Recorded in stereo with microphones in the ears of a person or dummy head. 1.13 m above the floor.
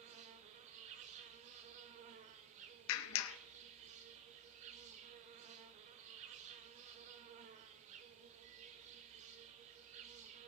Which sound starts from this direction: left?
A clap, at 2.9 s.